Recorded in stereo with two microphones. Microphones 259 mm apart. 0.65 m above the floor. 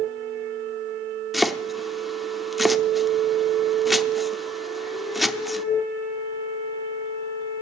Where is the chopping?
Centre (ahead or behind), 0.7 m.